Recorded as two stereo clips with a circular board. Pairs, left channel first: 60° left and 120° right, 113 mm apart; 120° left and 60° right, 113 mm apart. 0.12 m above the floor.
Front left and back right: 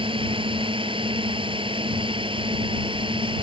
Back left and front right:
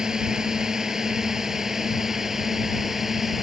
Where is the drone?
145° right.